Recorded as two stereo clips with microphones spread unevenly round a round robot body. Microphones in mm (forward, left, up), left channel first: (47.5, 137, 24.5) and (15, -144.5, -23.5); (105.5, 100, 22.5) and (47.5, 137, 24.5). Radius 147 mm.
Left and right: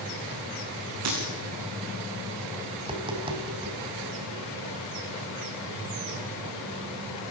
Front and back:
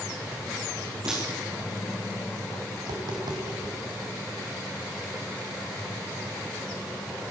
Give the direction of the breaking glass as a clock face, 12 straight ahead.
5 o'clock.